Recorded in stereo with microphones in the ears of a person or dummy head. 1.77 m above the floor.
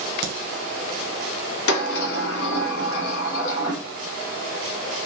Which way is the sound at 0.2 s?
55° right (ahead or behind).